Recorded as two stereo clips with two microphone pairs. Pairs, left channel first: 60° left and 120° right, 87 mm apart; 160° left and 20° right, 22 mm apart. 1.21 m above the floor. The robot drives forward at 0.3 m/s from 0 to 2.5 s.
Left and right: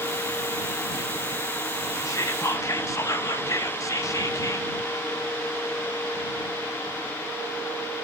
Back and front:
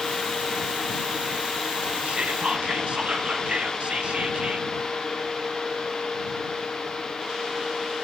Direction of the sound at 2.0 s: 10° left.